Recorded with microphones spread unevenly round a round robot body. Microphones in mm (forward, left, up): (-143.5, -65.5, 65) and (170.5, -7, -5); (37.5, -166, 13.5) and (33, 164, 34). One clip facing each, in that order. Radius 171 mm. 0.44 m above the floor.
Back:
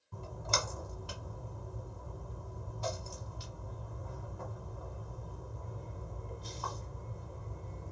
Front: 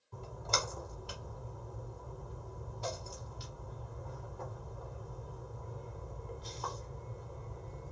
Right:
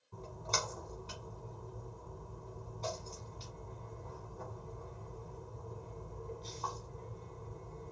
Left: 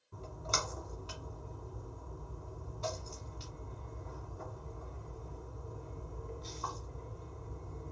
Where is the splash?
165° left, 1.2 m.